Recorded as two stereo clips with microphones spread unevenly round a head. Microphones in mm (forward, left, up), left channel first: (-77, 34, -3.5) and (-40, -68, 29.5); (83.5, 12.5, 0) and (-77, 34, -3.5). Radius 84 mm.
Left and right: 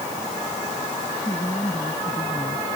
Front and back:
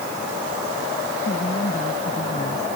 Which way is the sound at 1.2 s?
40° left.